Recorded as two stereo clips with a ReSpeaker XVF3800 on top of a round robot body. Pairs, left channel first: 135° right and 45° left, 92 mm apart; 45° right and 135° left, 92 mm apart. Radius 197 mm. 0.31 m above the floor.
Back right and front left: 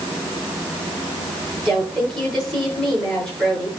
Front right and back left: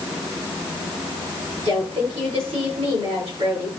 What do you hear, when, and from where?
1.6 s a woman speaking: 140° left, 7.5 m